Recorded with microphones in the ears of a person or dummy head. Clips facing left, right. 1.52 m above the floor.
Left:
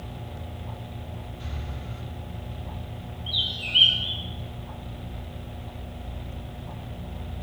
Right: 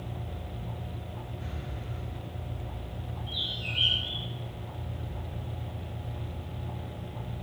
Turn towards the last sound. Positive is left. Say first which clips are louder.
# left 1 dB
turn(degrees=45)  # may be behind; listen again after turning